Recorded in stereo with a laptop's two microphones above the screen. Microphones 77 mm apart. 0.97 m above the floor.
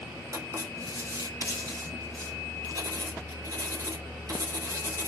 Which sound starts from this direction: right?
Writing, at 0.3 s.